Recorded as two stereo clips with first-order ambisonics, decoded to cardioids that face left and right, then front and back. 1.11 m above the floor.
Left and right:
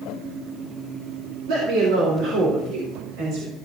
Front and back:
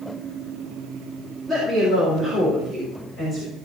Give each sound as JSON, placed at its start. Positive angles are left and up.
{"t": 1.5, "sound": "a woman speaking", "azimuth_deg": -95, "distance_m": 4.0}